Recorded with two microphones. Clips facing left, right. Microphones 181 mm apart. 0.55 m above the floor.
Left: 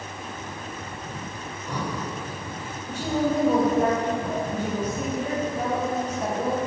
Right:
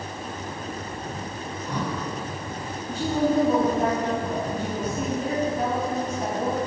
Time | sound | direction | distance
1.5 | breathing | 10° left (ahead or behind) | 1.6 m
2.9 | a woman speaking | 65° left (ahead or behind) | 3 m